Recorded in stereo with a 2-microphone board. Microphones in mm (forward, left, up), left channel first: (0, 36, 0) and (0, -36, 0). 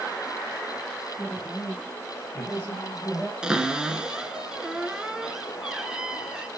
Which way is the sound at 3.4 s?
10° right (ahead or behind).